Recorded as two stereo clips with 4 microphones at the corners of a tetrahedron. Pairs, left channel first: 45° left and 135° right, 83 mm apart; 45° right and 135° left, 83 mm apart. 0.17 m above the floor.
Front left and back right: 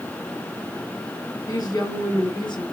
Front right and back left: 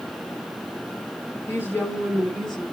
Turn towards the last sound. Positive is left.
turn(degrees=40)